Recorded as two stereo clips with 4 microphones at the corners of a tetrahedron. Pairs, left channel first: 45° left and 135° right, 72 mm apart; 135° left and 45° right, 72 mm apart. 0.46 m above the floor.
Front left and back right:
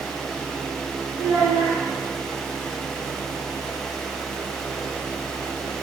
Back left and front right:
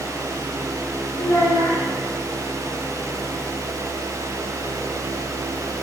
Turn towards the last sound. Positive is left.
turn(degrees=-165)